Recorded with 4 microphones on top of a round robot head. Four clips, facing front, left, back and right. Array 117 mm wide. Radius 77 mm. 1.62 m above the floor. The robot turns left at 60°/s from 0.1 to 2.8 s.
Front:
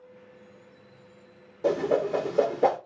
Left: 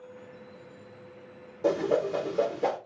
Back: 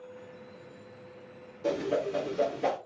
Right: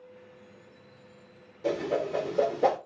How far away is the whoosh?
About 0.6 m.